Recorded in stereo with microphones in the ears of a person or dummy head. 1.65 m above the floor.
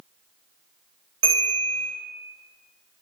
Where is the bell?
30° right (ahead or behind), 1.5 m.